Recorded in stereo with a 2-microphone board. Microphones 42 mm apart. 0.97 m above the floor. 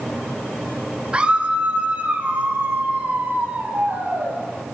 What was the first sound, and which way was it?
A scream, 25° right (ahead or behind).